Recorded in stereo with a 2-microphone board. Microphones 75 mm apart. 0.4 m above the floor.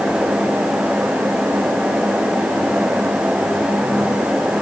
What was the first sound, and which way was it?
Only background noise.